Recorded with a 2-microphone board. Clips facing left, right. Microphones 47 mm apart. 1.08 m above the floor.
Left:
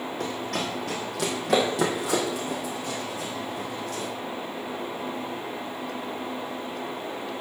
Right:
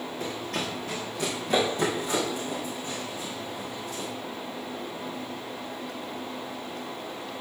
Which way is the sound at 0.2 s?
55° left (ahead or behind).